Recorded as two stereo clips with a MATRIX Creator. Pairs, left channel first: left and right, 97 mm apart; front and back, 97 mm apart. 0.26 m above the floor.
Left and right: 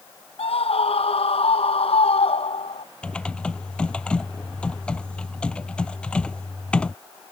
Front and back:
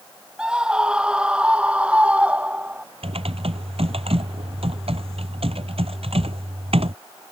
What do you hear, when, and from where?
0.4 s a scream: 100° left; by 2.9 s 105° left
3.0 s typing on a keyboard: 170° left